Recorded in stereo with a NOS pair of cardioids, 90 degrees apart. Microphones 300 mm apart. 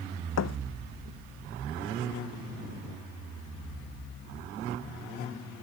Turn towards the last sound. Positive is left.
turn(degrees=55)